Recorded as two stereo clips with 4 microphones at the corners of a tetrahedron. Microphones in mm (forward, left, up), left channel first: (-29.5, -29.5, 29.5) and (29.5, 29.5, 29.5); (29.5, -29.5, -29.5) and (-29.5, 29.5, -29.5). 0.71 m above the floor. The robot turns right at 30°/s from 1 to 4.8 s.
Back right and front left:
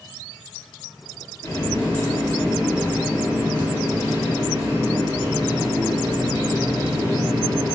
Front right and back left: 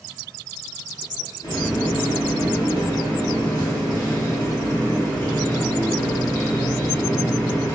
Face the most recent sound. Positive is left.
turn(degrees=25)